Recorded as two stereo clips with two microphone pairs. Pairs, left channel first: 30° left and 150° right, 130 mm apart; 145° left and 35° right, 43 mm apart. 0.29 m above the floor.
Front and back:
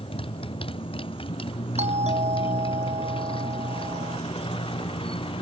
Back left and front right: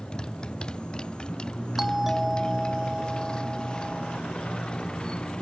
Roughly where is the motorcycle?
Left.